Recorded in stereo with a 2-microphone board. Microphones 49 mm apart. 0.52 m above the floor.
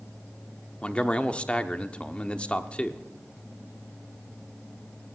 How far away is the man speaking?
About 0.9 m.